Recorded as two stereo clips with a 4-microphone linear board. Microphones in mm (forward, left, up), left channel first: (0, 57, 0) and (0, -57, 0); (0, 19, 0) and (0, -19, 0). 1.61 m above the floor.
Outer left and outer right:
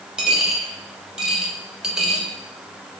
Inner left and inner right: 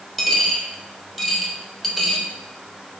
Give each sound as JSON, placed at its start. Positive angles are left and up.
{"t": 0.2, "sound": "a dropped coin", "side_deg": -5, "distance_m": 1.1}